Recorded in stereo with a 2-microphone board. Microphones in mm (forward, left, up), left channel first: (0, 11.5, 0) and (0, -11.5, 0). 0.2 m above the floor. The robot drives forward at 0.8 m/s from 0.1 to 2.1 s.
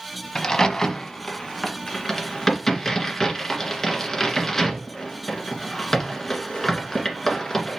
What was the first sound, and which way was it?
A crack, 25° left (ahead or behind).